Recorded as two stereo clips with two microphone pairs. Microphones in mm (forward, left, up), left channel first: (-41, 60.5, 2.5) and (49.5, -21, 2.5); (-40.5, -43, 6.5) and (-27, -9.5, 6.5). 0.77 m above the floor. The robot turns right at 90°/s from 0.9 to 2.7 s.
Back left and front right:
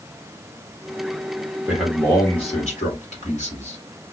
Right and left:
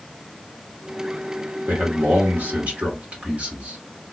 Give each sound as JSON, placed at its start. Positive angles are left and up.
{"t": 1.7, "sound": "a man speaking", "azimuth_deg": 35, "distance_m": 2.0}